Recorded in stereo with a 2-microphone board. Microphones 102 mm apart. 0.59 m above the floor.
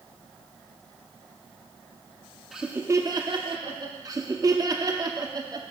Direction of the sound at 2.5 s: Centre (ahead or behind).